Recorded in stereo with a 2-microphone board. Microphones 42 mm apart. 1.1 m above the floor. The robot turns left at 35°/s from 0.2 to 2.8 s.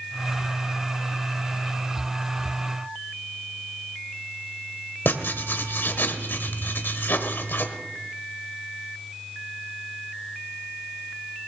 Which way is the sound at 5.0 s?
60° left (ahead or behind).